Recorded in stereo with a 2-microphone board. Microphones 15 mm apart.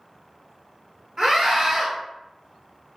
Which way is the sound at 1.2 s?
40° right (ahead or behind).